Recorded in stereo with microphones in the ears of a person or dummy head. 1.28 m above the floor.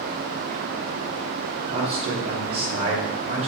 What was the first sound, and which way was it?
A man speaking, 40° right (ahead or behind).